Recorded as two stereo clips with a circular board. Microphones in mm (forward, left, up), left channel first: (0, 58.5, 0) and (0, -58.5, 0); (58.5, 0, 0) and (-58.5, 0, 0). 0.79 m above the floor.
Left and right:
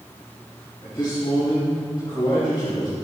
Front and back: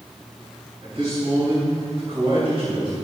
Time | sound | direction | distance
0.8 | a man speaking | 140° left | 4.5 m